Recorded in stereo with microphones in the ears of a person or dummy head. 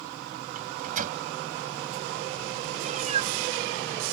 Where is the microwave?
40° right (ahead or behind).